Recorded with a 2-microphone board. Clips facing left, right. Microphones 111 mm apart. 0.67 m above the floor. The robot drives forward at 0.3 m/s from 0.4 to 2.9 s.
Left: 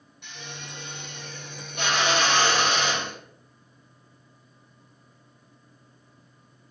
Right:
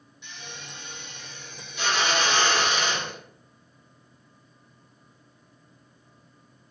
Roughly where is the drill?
Left.